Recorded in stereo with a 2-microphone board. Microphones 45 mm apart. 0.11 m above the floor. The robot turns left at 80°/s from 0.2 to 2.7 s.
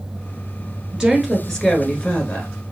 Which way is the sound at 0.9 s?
150° right.